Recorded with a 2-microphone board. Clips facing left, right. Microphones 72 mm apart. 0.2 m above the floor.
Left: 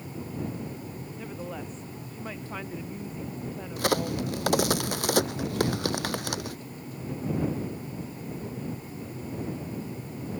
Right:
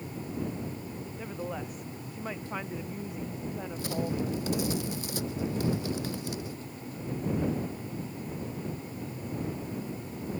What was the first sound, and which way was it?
A woman speaking, 10° right (ahead or behind).